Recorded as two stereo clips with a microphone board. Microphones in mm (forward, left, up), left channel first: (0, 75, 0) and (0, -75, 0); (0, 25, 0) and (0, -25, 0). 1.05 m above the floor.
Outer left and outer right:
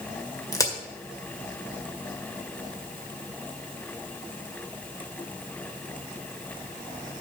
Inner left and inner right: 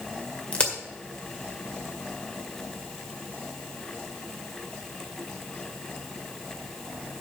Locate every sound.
0.5 s a crack: 20° left (ahead or behind), 1.8 m